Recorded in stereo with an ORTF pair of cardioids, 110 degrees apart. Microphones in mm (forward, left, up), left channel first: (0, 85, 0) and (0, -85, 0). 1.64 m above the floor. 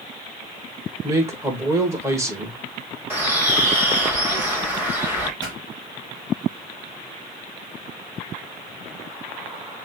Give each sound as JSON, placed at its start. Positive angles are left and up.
{"t": 1.0, "sound": "a man speaking", "azimuth_deg": -20, "distance_m": 1.5}
{"t": 3.1, "sound": "a bird", "azimuth_deg": -10, "distance_m": 1.6}
{"t": 5.4, "sound": "a pop", "azimuth_deg": -25, "distance_m": 3.5}